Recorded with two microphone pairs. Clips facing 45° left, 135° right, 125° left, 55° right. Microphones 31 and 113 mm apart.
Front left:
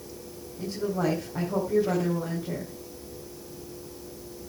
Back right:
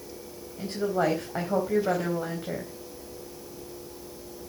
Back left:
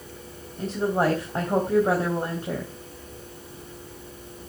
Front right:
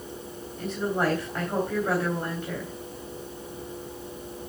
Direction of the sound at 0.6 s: Straight behind.